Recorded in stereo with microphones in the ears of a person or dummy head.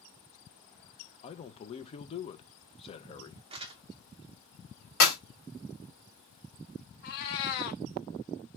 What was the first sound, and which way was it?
A man speaking, 35° left (ahead or behind).